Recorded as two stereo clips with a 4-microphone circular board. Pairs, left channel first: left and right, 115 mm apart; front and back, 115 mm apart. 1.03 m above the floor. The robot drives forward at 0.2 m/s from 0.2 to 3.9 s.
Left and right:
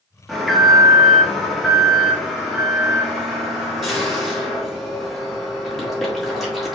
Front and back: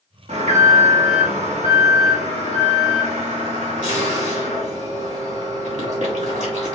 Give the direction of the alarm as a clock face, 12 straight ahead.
6 o'clock.